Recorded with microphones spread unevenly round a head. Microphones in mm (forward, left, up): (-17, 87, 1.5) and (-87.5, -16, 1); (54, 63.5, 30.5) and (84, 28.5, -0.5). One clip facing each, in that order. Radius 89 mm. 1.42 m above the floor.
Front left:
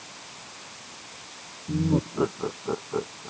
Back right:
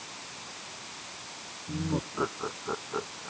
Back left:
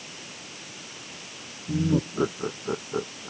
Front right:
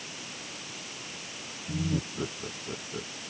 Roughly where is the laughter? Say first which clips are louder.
Front left 7 dB, back left 7 dB; behind left.